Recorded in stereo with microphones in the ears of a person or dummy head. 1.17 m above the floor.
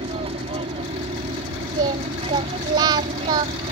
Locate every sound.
0.0 s an aircraft: 30° right (ahead or behind)
1.8 s singing: 15° right (ahead or behind)